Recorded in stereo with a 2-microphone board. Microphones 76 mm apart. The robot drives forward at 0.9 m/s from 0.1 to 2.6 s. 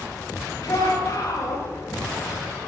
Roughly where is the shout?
Left.